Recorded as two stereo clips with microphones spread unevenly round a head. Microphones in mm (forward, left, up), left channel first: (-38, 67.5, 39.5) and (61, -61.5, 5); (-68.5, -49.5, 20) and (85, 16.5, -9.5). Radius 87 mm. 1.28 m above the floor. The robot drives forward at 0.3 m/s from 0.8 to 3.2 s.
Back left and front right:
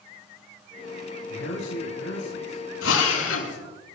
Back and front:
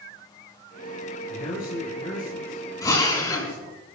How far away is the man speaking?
About 4.5 m.